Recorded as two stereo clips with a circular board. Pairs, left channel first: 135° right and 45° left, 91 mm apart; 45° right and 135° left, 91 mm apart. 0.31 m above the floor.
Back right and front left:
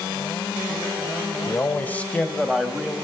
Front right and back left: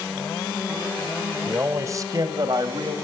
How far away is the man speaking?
About 1.2 m.